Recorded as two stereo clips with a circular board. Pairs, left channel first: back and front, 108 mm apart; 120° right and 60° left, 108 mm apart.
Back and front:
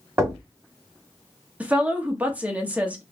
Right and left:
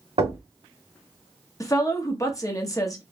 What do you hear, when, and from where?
0.2 s knocking: 65° left, 1.8 m
1.6 s a woman speaking: 70° right, 0.9 m